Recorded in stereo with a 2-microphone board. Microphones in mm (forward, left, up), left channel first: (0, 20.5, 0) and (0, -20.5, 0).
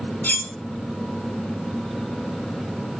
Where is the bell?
No bell in this recording.